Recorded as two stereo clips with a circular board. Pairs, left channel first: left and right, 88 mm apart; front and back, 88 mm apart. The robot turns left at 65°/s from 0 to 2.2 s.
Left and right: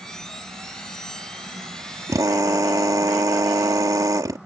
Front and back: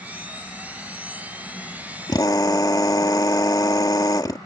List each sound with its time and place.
2.1 s a drill: 35° right; by 4.4 s 40° right